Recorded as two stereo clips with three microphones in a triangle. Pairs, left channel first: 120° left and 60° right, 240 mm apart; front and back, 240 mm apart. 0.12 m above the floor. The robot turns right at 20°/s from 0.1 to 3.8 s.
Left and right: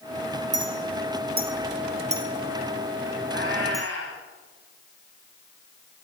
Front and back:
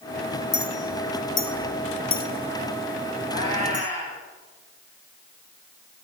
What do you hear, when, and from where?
0.5 s a clink: 35° right, 1.6 m; by 3.9 s 30° left, 1.6 m
3.3 s a cat meowing: 115° left, 4.5 m; by 4.2 s 125° left, 4.5 m